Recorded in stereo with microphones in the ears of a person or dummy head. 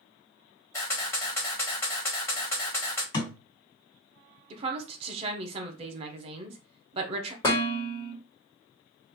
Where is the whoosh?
No whoosh in this recording.